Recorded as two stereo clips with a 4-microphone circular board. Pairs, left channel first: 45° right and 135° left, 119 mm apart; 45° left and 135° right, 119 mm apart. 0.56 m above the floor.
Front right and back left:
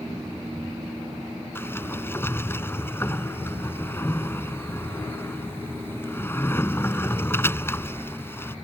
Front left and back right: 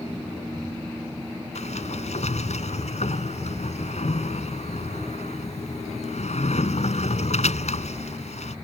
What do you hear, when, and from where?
1.6 s a sliding door: 25° left